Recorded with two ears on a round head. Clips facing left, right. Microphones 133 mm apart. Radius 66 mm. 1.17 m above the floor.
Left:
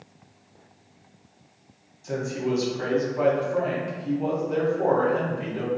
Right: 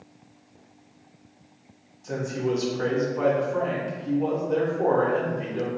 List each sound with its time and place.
2.0 s a man speaking: 5° left (ahead or behind), 0.8 m